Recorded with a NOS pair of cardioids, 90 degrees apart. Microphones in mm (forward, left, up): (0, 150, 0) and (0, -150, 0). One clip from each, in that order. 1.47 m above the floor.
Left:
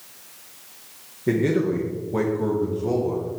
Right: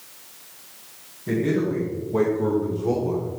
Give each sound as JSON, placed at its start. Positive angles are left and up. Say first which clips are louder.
{"t": 1.3, "sound": "a man speaking", "louder": "left 2 dB", "azimuth_deg": 45, "distance_m": 1.8}